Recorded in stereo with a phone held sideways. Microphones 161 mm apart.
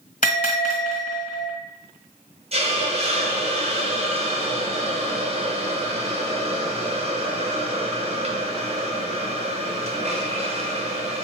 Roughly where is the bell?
Left.